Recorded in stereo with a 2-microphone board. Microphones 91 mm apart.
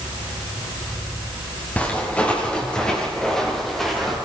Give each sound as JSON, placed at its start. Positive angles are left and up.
{"t": 1.8, "sound": "footsteps", "side_deg": 15, "distance_m": 7.5}